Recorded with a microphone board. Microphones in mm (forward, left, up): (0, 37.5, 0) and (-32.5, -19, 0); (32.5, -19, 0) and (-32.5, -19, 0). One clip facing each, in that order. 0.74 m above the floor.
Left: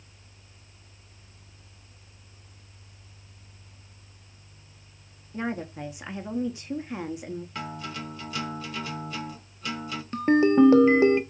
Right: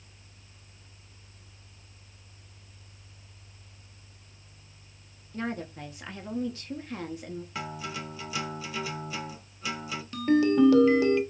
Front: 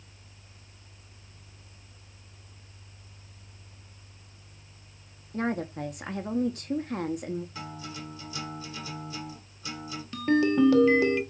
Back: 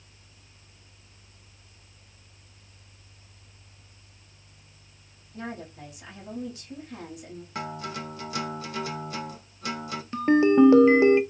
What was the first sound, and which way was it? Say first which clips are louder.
A woman speaking: left 3 dB, front 8 dB; 10° right.